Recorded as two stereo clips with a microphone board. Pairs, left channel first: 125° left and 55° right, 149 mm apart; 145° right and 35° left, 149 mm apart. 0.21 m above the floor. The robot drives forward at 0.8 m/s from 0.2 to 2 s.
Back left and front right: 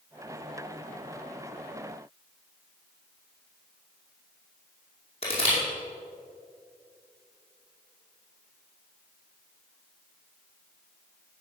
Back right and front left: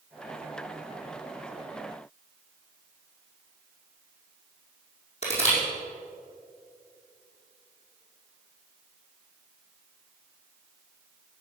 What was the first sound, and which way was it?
Crushing, 170° left.